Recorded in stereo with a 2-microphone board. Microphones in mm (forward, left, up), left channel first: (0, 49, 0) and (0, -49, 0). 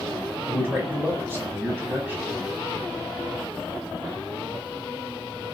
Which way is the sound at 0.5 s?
15° right (ahead or behind).